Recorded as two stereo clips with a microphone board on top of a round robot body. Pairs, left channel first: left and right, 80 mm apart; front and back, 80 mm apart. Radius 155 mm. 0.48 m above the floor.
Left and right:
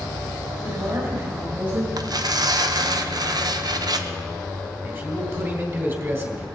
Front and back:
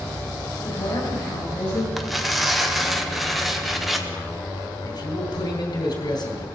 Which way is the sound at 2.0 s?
90° right.